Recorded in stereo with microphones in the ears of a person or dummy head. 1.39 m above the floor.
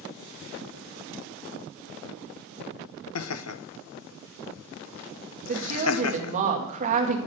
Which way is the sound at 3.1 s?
70° left (ahead or behind).